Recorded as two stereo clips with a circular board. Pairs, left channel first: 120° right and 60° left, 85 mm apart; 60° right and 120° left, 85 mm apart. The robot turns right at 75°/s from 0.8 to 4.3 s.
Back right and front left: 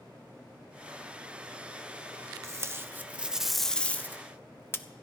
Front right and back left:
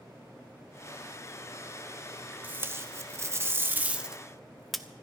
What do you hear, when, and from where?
2.4 s tape being pulled: 70° left, 0.7 m; by 4.8 s 150° right, 0.7 m